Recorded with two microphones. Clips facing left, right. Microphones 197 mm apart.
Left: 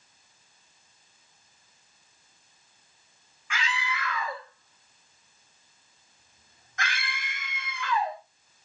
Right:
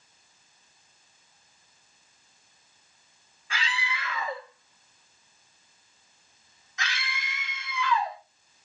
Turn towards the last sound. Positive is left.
turn(degrees=50)  # may be behind; listen again after turning